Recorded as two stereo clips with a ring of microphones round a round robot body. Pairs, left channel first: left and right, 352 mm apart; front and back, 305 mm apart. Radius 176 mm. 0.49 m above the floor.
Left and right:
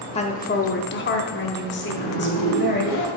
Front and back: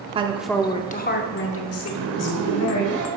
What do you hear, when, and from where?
0.1 s a woman speaking: 140° left, 0.7 m; by 2.8 s 30° left, 1.9 m
1.8 s a zipper: 140° left, 1.9 m